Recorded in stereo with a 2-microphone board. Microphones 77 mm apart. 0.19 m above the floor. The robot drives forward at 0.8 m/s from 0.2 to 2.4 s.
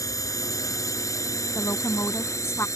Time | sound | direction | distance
0.0 | a drone | 45° left (ahead or behind) | ?
1.6 | a woman speaking | 40° left (ahead or behind) | ?